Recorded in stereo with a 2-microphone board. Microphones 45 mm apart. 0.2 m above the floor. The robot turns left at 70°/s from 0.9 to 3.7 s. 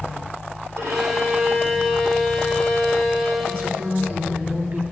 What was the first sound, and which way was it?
A violin, 110° right.